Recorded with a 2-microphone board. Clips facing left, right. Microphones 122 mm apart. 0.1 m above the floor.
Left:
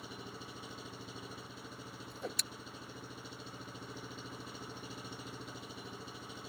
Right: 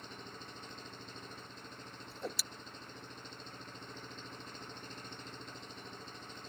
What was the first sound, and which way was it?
An engine running, 10° left (ahead or behind).